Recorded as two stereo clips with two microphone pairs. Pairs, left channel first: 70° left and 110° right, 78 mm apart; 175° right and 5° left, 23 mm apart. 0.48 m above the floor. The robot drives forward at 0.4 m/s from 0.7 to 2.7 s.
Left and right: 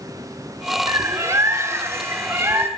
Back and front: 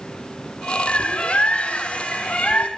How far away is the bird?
About 0.9 m.